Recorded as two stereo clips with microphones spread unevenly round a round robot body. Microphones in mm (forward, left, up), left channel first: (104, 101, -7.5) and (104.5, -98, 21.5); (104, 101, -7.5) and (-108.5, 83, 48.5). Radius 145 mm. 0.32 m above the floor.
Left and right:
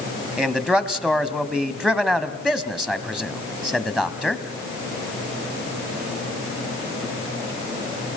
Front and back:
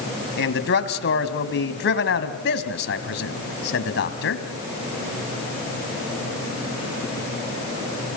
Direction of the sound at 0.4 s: Straight ahead.